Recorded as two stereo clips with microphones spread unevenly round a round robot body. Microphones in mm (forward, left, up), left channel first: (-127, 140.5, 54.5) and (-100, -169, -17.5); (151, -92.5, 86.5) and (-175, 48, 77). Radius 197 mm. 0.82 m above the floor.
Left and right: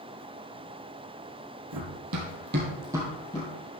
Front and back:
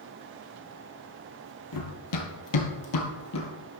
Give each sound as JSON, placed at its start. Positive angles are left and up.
{"t": 1.7, "sound": "running footsteps", "azimuth_deg": -50, "distance_m": 1.9}